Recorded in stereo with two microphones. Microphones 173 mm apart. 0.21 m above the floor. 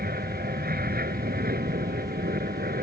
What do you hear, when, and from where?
0.0 s an aircraft: 65° right (ahead or behind)